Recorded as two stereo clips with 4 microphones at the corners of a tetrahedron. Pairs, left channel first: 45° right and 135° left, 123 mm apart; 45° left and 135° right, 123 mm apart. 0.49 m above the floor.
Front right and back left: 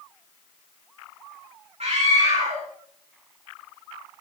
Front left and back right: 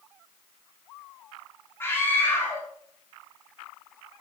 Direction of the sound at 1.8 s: 115° left.